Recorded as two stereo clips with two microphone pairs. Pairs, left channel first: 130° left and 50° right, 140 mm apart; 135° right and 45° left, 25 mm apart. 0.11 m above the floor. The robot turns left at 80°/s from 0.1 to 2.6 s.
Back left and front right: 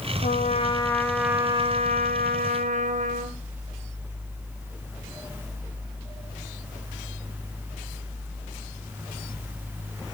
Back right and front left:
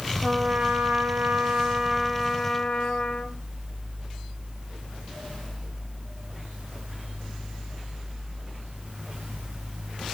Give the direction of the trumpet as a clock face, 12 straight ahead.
8 o'clock.